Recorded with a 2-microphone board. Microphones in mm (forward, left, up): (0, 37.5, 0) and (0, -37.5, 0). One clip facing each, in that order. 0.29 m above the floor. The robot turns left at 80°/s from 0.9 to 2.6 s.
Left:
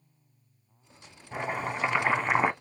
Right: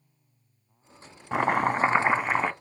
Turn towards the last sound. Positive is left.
turn(degrees=160)